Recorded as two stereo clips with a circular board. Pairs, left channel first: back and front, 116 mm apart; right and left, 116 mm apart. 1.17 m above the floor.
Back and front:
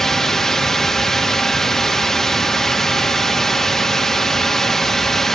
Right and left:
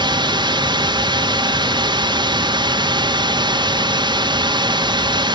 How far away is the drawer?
No drawer in this recording.